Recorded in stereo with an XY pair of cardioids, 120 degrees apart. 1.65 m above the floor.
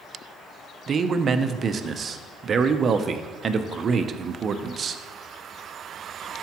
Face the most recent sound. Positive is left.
turn(degrees=-40)